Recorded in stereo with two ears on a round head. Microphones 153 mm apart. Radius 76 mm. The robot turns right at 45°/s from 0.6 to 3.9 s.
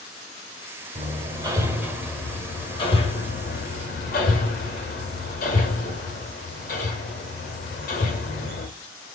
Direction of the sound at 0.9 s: 40° right (ahead or behind).